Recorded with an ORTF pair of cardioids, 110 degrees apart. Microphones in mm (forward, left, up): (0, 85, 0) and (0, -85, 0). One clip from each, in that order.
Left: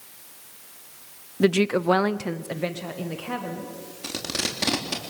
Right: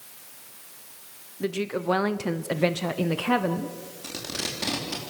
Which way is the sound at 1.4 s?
50° left.